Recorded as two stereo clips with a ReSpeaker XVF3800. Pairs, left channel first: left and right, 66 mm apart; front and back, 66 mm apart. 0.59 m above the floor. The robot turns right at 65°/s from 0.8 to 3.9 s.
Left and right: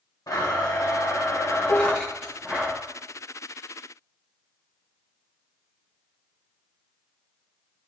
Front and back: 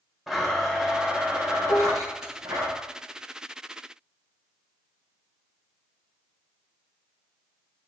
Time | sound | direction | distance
0.3 | a blender | 95° left | 2.5 m
1.7 | dishes clattering | 50° left | 1.1 m